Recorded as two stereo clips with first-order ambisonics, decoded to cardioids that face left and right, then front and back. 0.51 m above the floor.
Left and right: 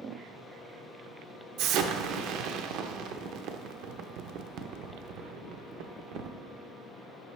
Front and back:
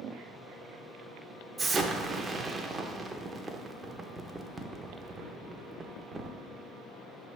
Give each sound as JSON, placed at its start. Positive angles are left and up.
{"t": 1.6, "sound": "an explosion", "azimuth_deg": -105, "distance_m": 0.5}